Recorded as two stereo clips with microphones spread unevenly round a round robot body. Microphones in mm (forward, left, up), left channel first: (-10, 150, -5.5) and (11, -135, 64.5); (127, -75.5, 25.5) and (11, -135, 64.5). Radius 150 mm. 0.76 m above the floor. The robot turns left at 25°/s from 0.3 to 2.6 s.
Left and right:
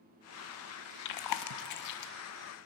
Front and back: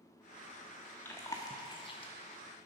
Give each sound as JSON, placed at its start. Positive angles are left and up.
{"t": 1.1, "sound": "chewing", "azimuth_deg": 100, "distance_m": 0.6}